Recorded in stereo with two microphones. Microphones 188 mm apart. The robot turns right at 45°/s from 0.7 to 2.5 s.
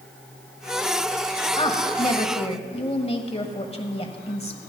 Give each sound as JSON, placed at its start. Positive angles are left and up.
{"t": 1.6, "sound": "a woman speaking", "azimuth_deg": 65, "distance_m": 1.3}